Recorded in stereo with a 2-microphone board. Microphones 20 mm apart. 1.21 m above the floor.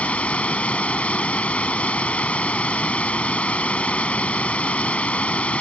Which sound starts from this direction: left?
Running water, at 0.0 s.